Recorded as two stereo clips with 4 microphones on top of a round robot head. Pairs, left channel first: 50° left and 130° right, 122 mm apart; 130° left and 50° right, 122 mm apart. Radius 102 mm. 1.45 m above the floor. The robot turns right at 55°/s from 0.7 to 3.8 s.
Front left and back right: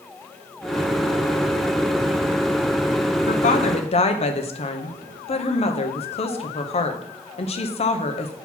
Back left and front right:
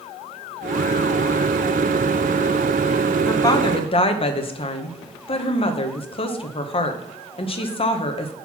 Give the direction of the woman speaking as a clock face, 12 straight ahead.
10 o'clock.